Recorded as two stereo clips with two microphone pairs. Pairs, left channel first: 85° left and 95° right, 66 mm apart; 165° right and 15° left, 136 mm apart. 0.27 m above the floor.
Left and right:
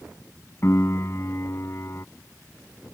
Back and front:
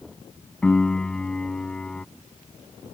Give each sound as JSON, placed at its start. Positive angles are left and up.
{"t": 0.6, "sound": "a piano", "azimuth_deg": 110}